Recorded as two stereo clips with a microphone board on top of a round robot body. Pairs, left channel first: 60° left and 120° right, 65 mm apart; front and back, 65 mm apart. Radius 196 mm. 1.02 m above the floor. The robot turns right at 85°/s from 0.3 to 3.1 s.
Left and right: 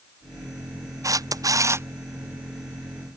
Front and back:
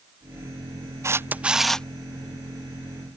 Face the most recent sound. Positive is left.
turn(degrees=30)